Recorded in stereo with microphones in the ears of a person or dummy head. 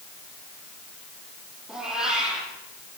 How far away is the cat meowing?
About 8 m.